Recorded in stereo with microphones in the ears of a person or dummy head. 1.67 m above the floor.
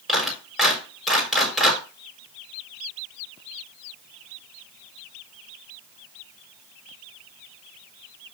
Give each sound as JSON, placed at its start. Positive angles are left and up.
{"t": 0.1, "sound": "a clap", "side_deg": 0, "distance_m": 4.0}